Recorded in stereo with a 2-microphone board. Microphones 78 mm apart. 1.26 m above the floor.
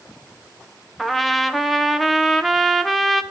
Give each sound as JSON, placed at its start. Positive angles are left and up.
{"t": 1.0, "sound": "a trumpet", "side_deg": 0, "distance_m": 0.7}